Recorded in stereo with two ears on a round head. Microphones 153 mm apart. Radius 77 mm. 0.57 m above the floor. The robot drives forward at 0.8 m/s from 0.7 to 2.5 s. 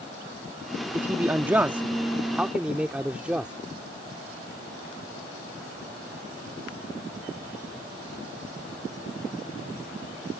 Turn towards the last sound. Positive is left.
turn(degrees=-5)  # may be behind; listen again after turning